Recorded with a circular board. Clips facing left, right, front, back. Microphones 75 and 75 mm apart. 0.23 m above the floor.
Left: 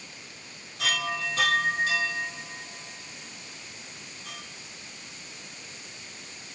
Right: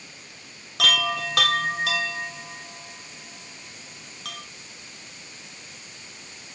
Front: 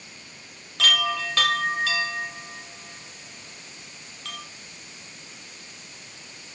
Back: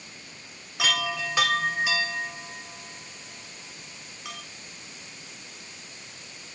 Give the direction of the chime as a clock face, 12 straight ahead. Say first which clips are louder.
Right 5 dB, front 3 dB; 3 o'clock.